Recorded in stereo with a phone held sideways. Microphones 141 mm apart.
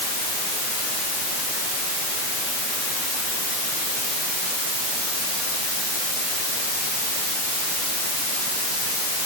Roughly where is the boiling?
I don't hear boiling.